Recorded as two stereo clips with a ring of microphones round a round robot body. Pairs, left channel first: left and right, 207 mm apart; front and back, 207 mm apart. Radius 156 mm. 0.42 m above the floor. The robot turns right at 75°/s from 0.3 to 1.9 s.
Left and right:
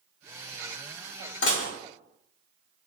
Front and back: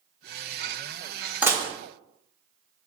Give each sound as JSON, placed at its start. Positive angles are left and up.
{"t": 1.4, "sound": "dishes clattering", "azimuth_deg": 100, "distance_m": 0.8}